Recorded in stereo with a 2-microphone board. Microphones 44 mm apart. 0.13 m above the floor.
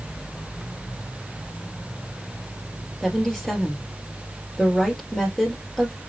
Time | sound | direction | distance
3.0 | a woman speaking | 5° left (ahead or behind) | 2 m